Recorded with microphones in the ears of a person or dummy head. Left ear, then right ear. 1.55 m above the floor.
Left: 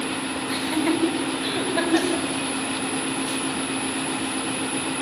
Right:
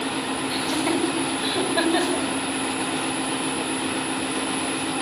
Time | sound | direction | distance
0.5 | laughter | centre (ahead or behind) | 6.5 m